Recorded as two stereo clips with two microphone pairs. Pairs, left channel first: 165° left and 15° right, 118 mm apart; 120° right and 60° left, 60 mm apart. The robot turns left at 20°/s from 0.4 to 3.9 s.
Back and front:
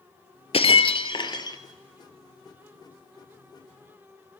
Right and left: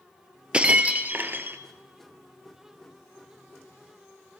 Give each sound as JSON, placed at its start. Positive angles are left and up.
{"t": 0.5, "sound": "breaking glass", "azimuth_deg": 130, "distance_m": 0.9}